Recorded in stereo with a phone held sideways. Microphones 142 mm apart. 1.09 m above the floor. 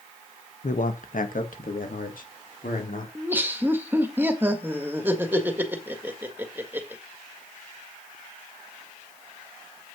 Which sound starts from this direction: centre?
Laughter, at 3.1 s.